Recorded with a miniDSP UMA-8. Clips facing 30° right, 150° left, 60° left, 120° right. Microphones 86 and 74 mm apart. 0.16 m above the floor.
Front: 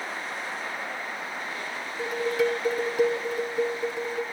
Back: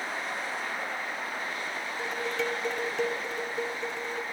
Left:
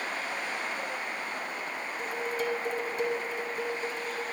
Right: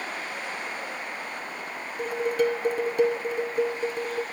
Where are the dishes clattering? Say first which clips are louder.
Front 7 dB, right 9 dB; 110° right, 2 m.